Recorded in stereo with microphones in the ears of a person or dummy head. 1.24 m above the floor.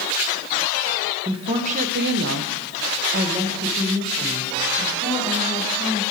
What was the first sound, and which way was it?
A woman speaking, 30° right (ahead or behind).